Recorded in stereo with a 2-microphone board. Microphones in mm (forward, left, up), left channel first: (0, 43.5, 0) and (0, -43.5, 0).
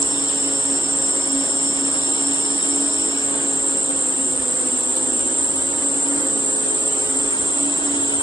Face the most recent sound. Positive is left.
turn(degrees=-20)  # may be behind; listen again after turning